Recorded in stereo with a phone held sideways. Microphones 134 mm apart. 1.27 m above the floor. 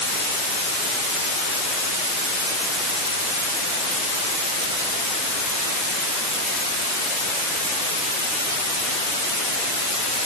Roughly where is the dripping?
No dripping in this recording.